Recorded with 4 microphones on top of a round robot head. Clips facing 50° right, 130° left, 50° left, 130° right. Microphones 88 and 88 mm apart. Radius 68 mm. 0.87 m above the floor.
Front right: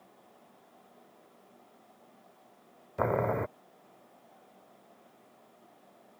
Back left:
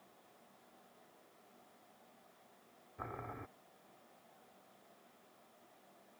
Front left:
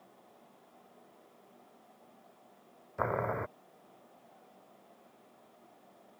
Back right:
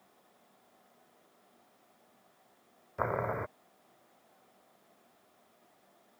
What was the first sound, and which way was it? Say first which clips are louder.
Boiling: front right 18 dB, even; 40° right.